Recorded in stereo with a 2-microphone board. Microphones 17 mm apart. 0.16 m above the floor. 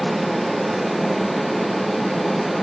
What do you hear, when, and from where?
Only background noise.